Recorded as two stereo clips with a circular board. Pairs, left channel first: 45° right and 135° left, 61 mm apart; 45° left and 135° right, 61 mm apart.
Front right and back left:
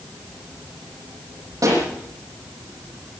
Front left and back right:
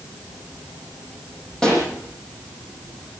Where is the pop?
125° left, 8 m.